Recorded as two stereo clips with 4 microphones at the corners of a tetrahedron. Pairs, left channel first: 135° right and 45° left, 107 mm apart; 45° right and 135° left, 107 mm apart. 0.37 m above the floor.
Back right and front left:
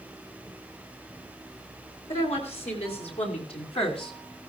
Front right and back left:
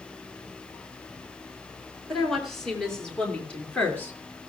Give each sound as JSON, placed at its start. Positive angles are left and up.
{"t": 2.1, "sound": "a woman speaking", "azimuth_deg": -135, "distance_m": 6.0}